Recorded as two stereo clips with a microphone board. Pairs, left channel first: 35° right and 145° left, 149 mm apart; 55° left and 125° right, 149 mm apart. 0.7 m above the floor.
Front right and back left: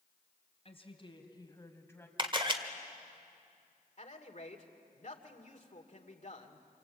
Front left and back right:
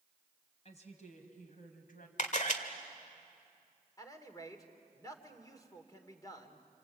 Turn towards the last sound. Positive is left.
turn(degrees=-10)